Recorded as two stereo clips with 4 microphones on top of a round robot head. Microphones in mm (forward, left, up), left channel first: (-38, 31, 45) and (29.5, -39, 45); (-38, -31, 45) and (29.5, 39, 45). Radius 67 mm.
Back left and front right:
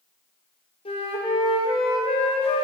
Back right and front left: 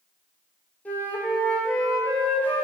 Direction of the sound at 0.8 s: 155° left.